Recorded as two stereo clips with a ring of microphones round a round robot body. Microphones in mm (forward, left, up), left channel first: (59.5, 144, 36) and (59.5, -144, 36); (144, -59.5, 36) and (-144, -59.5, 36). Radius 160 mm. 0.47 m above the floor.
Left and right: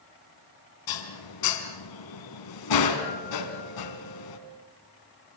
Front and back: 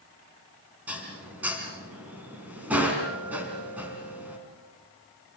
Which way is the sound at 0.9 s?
95° left.